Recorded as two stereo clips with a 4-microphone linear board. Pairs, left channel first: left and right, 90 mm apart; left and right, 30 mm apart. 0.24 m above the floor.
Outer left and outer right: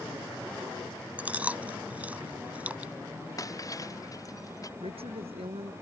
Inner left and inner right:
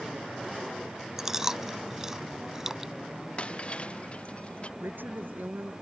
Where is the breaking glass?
35° left (ahead or behind).